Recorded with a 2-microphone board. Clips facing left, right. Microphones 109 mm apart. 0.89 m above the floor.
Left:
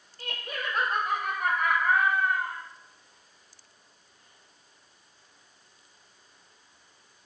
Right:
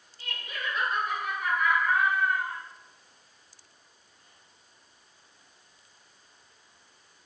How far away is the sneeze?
No sneeze in this recording.